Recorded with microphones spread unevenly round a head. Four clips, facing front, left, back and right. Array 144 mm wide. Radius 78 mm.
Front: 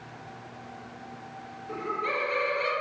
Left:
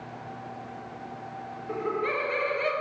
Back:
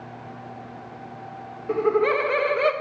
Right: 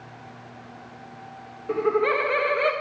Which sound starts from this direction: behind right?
Laughter, at 1.7 s.